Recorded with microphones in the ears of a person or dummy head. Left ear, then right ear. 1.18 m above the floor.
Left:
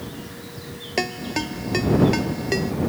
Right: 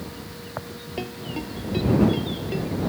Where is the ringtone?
60° left (ahead or behind).